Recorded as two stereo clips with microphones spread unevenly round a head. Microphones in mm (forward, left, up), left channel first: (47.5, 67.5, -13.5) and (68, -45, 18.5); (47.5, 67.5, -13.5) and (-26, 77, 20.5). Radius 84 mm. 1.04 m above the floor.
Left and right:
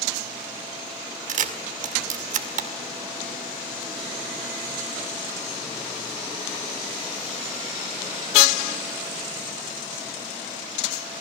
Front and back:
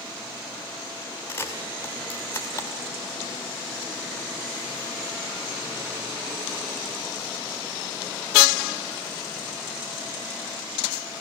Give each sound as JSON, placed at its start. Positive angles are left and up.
{"t": 1.3, "sound": "a camera shutter", "azimuth_deg": -85, "distance_m": 2.0}